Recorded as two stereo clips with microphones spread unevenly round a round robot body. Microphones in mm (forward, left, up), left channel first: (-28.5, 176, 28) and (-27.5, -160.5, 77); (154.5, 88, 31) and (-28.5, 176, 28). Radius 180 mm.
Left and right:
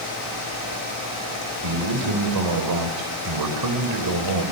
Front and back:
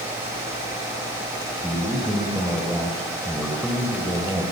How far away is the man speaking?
About 4 m.